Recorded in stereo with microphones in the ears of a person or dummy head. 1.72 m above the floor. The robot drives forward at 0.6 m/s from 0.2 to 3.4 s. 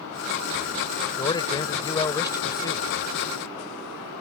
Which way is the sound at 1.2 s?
20° left (ahead or behind).